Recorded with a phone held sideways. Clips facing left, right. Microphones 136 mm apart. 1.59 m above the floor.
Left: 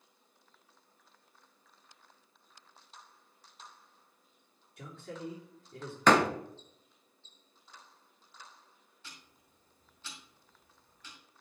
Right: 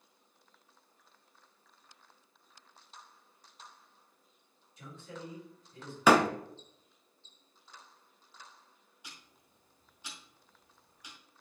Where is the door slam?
10° right (ahead or behind), 0.8 m.